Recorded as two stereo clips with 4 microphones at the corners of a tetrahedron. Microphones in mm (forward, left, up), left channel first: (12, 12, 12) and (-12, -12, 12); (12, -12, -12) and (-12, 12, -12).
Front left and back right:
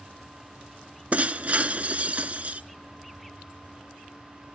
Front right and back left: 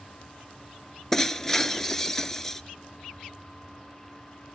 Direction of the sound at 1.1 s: 120° right.